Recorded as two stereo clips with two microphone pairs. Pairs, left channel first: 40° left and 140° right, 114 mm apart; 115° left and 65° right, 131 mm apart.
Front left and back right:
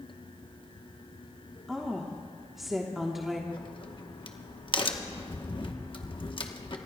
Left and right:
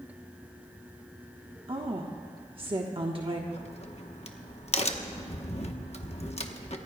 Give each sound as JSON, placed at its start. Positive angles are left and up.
{"t": 1.7, "sound": "a woman speaking", "azimuth_deg": -55, "distance_m": 1.0}
{"t": 3.5, "sound": "a crack", "azimuth_deg": 80, "distance_m": 1.0}